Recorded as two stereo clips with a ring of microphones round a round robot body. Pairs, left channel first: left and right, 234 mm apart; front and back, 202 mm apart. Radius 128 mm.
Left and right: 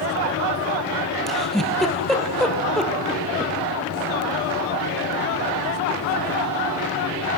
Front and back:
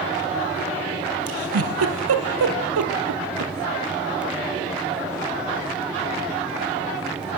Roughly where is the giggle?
Behind.